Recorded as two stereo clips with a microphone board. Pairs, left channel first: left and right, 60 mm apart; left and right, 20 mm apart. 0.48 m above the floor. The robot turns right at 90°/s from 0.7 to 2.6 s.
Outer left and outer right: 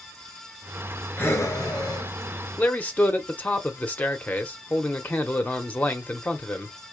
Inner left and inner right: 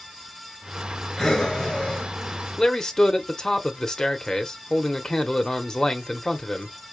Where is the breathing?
30° left, 1.9 m; by 2.1 s 115° left, 1.9 m.